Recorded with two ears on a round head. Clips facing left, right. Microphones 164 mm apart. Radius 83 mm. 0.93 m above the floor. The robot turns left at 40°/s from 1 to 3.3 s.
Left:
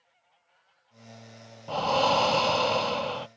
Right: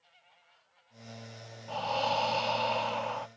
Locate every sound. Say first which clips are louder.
1.7 s breathing: left 7 dB; 105° left; by 3.3 s 45° left